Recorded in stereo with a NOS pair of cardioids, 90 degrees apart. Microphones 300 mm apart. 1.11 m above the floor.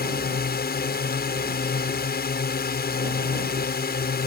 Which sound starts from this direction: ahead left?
A drone, at 0.0 s.